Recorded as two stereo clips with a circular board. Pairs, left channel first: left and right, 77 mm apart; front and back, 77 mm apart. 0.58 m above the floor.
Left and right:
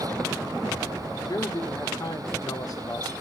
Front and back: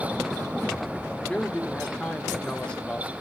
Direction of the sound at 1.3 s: 75° left.